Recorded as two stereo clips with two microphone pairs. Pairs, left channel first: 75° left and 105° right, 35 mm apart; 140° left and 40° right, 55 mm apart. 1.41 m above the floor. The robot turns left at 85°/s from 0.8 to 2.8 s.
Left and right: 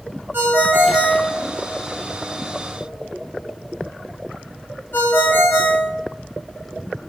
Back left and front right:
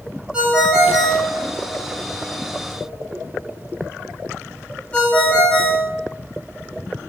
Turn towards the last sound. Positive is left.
turn(degrees=75)